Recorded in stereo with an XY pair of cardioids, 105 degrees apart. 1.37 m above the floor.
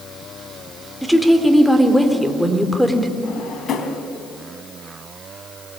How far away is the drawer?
About 4 m.